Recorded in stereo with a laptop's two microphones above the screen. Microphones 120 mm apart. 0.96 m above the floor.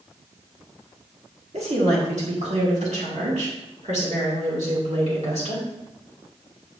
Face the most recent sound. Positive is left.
turn(degrees=-70)  # may be behind; listen again after turning